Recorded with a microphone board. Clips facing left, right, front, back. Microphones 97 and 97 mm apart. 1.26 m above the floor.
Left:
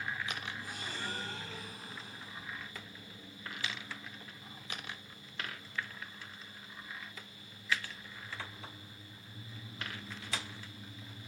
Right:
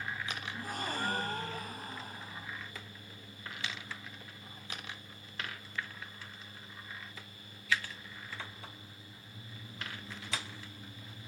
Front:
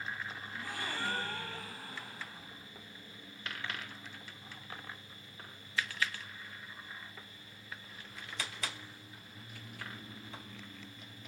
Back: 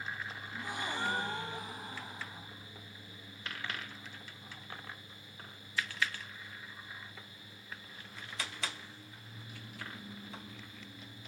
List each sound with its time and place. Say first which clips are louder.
0.5 s a gasp: right 5 dB, back 3 dB; 110° right, 1.8 m